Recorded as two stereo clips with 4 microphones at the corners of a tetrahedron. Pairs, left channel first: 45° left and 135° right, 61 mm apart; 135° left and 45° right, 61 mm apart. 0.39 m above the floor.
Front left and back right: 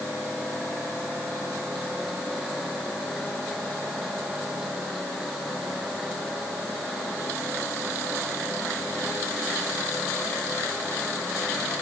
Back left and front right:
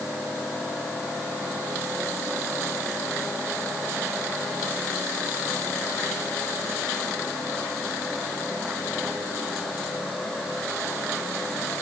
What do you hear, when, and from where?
Only background noise.